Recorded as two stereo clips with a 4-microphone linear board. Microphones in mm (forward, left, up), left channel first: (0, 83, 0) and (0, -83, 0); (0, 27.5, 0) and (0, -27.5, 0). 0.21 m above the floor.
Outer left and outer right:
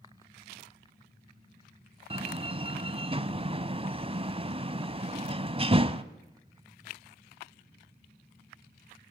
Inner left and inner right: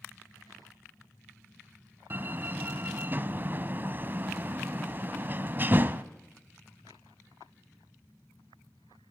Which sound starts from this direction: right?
A door slam, at 2.1 s.